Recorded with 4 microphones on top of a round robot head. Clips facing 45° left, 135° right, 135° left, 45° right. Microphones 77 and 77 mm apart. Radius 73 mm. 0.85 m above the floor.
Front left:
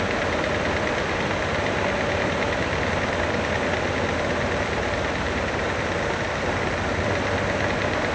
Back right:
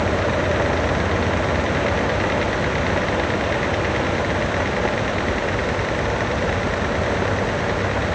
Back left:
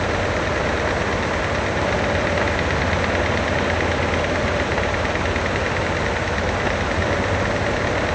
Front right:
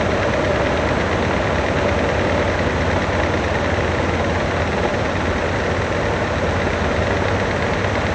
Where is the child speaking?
I don't hear a child speaking.